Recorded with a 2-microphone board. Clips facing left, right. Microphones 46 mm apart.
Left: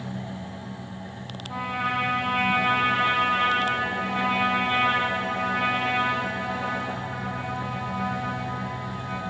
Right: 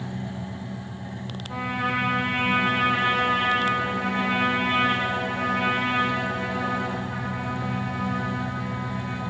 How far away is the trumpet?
About 2.5 m.